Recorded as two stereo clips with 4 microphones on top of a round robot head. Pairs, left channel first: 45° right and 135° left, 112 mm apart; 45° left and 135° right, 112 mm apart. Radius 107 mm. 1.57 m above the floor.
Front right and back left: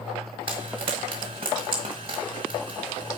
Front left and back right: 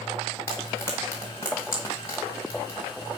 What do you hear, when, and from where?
0.5 s frying: 105° left, 0.8 m